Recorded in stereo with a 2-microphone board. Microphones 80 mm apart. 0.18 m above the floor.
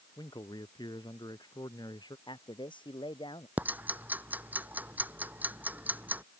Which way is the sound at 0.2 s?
65° left (ahead or behind).